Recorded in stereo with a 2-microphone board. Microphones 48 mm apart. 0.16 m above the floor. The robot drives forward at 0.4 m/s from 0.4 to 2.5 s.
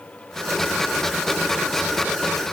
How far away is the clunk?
No clunk in this recording.